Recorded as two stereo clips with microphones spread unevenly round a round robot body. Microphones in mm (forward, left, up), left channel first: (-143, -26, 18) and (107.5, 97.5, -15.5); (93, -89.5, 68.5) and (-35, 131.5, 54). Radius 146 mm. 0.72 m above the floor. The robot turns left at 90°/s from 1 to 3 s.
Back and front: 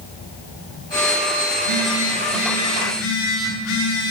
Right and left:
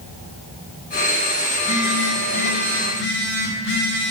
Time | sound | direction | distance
1.5 | a phone buzzing | 25° left | 8 m